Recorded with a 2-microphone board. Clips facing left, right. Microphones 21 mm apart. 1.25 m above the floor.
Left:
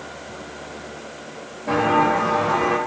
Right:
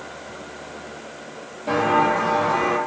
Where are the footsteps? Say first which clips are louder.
Left 1 dB; 40° right (ahead or behind), 1.7 m; by 2.8 s 10° left (ahead or behind), 1.6 m.